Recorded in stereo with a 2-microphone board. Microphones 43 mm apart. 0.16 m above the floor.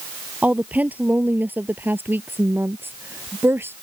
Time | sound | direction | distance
0.4 | a woman speaking | 35° right (ahead or behind) | ?